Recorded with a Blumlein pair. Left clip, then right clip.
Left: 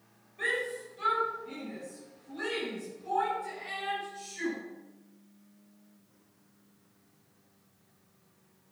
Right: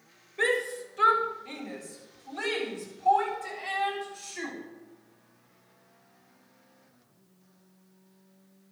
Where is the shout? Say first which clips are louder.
Right 4 dB; 45° right, 5 m; by 4.5 s 60° right, 9 m.